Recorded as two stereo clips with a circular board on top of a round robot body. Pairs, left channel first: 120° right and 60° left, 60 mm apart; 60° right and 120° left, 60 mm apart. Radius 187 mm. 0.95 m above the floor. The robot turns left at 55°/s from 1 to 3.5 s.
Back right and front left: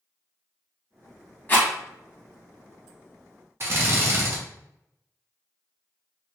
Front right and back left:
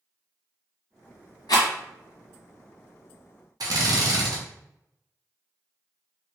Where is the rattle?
55° right, 1.1 m; by 1.7 s 65° right, 1.1 m.